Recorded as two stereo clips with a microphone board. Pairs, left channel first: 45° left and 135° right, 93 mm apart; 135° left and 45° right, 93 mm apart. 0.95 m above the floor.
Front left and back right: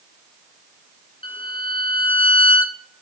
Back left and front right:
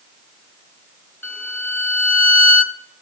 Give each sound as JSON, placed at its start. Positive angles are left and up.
{"t": 1.2, "sound": "a violin", "azimuth_deg": 65, "distance_m": 1.1}